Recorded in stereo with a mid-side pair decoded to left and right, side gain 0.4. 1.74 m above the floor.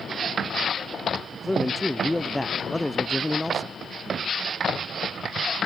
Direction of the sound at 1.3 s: 10° left.